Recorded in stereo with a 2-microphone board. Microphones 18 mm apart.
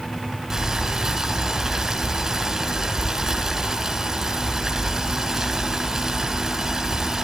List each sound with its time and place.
0.5 s boiling: 30° right (ahead or behind), 5 m